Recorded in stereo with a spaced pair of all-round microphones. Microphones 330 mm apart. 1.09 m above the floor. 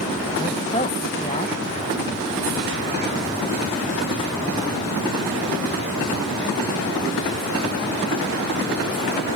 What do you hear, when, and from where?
0.4 s a man speaking: 20° left (ahead or behind), 1.2 m